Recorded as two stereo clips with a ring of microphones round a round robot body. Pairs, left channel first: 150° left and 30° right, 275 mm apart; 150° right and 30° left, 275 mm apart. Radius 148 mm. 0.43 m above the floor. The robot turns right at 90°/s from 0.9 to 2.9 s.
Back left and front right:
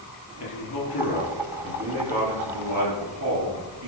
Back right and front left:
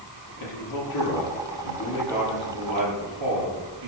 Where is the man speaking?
170° right, 8.5 m; by 3.9 s 10° left, 8.5 m.